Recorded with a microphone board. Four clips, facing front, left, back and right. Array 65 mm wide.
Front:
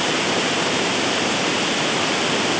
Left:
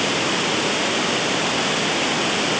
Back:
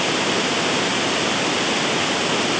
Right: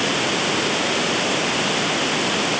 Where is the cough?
No cough in this recording.